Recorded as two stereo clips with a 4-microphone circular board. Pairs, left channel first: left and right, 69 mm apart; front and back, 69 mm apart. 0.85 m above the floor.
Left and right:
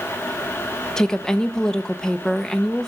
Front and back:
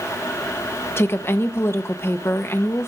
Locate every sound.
1.0 s a woman speaking: 15° left, 0.7 m